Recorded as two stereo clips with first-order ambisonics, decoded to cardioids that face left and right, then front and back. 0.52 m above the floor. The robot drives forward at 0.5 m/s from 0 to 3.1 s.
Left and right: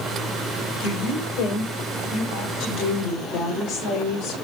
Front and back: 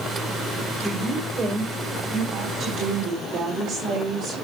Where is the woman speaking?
100° left, 2.5 m; by 4.5 s 125° left, 3 m.